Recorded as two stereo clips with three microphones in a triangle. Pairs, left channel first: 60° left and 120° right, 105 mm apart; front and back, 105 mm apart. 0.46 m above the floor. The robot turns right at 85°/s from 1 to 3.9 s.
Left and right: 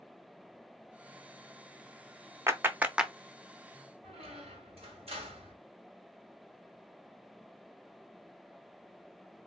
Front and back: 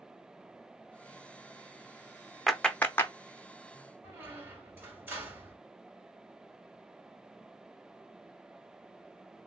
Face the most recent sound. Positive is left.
turn(degrees=-110)